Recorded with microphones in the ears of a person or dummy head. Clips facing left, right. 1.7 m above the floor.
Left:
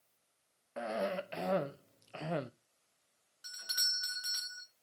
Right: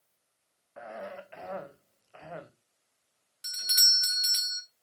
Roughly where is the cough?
Left.